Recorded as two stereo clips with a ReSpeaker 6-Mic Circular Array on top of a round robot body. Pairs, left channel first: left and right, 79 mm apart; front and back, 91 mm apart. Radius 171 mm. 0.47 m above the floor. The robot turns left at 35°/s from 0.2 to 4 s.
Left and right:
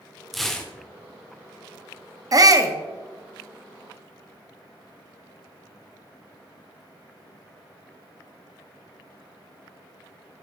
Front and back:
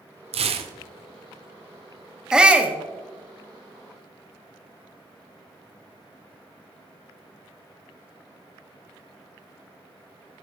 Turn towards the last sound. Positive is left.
turn(degrees=-160)